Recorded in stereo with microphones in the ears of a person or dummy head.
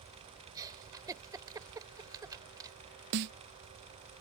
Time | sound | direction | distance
0.6 | a giggle | 15° right (ahead or behind) | ?
3.1 | a snare drum | 50° right (ahead or behind) | ?